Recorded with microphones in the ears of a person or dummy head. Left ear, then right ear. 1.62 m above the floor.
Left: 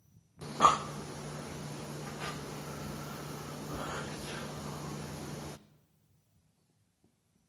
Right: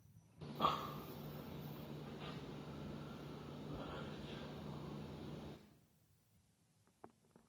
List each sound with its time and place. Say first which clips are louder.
0.4 s breathing: left 13 dB; 60° left (ahead or behind), 0.5 m